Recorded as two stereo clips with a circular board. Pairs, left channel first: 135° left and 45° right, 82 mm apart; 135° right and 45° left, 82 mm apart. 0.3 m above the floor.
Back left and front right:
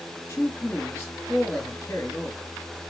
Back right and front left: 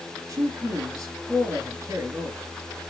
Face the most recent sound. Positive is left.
turn(degrees=80)